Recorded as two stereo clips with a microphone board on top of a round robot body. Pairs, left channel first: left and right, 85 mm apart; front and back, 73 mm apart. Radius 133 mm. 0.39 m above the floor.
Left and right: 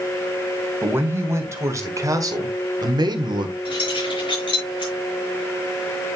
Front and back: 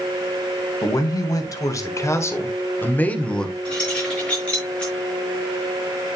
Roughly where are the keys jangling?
Left.